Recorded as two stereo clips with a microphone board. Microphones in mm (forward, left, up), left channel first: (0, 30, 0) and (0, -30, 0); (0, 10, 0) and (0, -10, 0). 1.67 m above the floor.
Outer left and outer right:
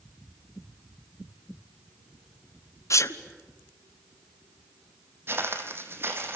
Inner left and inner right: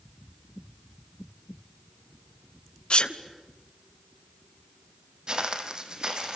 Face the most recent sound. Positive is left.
turn(degrees=-40)  # may be behind; listen again after turning